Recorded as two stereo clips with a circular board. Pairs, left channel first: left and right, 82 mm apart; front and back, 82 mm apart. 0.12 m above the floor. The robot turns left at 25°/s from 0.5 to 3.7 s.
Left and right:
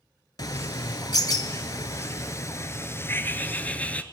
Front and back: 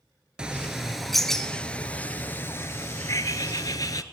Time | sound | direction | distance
0.4 | a bird | 105° left | 0.6 m